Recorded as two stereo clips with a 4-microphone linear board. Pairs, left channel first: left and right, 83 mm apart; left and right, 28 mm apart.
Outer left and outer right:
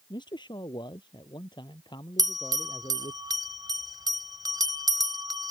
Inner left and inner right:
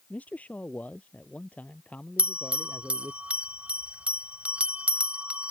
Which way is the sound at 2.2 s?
55° right (ahead or behind).